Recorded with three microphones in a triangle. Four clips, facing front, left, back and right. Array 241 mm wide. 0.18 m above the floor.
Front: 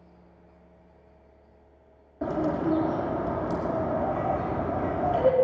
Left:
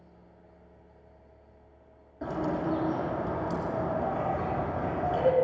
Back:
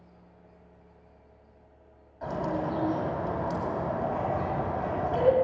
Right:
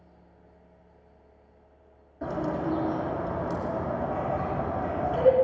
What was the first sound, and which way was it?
A bird, straight ahead.